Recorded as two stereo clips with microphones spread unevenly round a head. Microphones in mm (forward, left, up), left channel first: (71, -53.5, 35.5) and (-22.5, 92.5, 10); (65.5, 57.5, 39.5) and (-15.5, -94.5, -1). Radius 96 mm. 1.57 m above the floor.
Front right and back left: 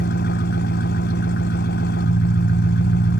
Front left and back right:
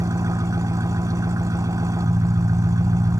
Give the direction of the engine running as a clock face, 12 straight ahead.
1 o'clock.